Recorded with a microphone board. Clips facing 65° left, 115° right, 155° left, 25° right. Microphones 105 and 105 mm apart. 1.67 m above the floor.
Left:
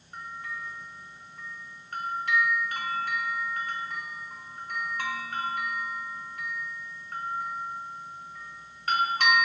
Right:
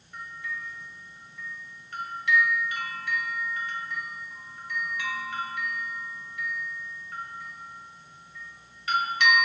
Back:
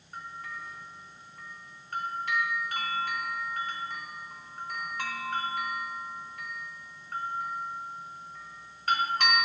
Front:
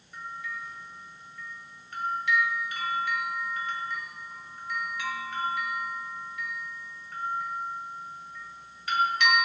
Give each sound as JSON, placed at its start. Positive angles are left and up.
{"t": 0.1, "sound": "a bell", "azimuth_deg": 110, "distance_m": 1.7}